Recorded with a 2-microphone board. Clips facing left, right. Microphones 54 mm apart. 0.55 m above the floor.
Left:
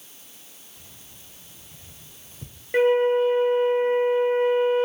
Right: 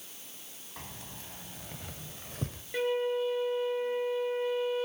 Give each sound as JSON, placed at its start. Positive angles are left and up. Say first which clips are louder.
{"t": 0.8, "sound": "keys jangling", "louder": "right 10 dB", "side_deg": -80, "distance_m": 2.5}
{"t": 2.7, "sound": "a flute", "louder": "left 11 dB", "side_deg": 45, "distance_m": 0.6}